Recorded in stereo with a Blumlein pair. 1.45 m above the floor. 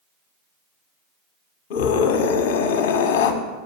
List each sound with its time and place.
1.7 s a scream: 50° left, 1.3 m